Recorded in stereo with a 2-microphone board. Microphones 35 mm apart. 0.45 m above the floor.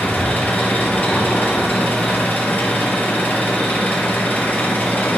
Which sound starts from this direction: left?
An engine running, at 0.0 s.